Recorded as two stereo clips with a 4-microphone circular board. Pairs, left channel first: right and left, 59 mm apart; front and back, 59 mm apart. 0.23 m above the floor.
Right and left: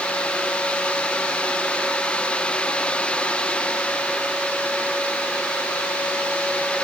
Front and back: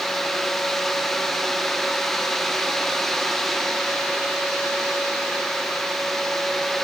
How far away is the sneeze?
No sneeze in this recording.